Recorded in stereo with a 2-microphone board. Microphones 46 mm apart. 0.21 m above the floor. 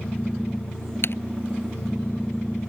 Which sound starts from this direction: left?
Typing on a keyboard, at 1.0 s.